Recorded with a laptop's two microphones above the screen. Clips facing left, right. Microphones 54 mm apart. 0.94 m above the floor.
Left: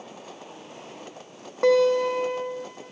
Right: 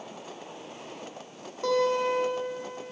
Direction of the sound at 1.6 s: 85° left.